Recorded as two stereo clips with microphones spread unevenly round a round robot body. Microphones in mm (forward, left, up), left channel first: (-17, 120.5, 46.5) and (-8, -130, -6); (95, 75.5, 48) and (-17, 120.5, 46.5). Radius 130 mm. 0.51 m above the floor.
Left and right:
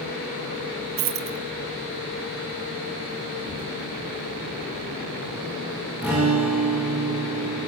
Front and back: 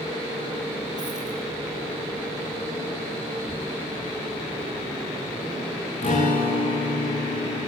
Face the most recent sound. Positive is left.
turn(degrees=0)